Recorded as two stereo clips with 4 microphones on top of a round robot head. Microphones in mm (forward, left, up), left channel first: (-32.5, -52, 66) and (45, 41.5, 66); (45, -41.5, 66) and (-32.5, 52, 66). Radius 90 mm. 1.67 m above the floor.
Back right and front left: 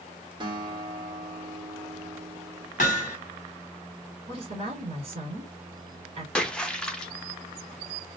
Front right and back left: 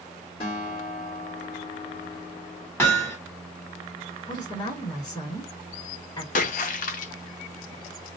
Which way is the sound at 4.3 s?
15° left.